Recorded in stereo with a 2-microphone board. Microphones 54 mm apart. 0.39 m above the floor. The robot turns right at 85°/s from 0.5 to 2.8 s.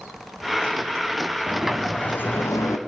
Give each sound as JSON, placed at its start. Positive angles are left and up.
{"t": 1.5, "sound": "a sliding door", "azimuth_deg": -25, "distance_m": 1.6}